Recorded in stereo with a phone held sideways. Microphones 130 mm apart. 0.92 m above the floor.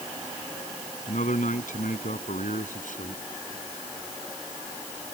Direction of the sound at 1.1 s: 85° left.